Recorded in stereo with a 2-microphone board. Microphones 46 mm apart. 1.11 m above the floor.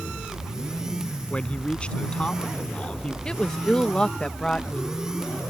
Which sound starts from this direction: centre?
A woman speaking, at 3.2 s.